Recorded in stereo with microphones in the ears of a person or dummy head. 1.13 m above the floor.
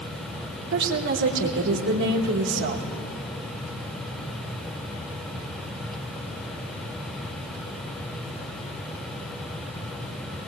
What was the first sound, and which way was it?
A woman speaking, 60° right (ahead or behind).